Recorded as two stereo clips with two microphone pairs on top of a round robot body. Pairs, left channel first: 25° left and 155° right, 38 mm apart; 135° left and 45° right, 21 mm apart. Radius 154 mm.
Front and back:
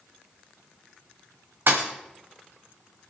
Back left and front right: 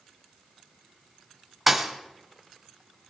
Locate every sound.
1.7 s a thud: 125° right, 1.4 m